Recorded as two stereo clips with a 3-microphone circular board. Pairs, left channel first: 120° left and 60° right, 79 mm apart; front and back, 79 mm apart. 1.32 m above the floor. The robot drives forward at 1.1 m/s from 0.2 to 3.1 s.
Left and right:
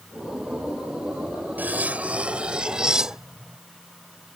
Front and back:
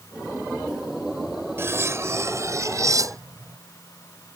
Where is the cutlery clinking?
125° right; by 3.6 s 140° right.